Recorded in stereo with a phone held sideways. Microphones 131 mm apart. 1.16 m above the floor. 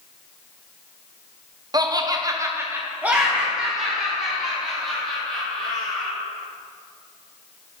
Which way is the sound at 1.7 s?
30° right (ahead or behind).